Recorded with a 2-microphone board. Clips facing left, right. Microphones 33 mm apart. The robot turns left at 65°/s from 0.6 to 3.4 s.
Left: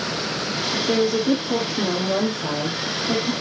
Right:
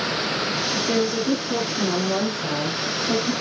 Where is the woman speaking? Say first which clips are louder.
Left 4 dB; 160° left, 3.5 m; by 3.3 s 10° right, 3.5 m.